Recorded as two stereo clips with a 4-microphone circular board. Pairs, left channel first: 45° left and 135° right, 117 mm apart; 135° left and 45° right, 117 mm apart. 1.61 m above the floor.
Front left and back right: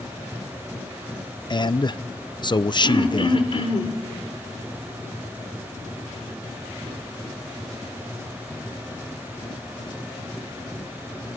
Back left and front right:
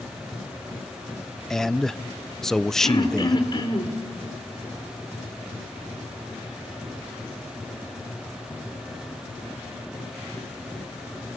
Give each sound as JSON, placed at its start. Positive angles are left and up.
{"t": 1.5, "sound": "a man speaking", "azimuth_deg": 50, "distance_m": 0.5}
{"t": 2.8, "sound": "throat clearing", "azimuth_deg": 85, "distance_m": 3.5}